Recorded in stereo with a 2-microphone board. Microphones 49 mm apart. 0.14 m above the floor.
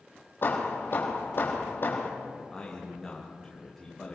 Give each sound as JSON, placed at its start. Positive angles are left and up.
{"t": 0.4, "sound": "hammering", "side_deg": 50, "distance_m": 3.5}
{"t": 2.4, "sound": "a man speaking", "side_deg": 10, "distance_m": 8.0}